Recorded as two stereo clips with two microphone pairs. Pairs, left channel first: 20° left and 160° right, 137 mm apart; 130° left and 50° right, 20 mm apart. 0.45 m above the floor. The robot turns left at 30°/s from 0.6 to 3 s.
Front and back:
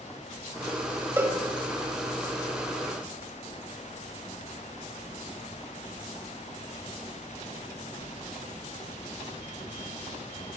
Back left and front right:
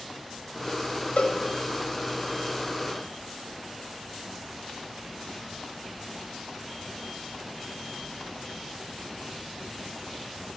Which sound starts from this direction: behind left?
A cowbell, at 1.2 s.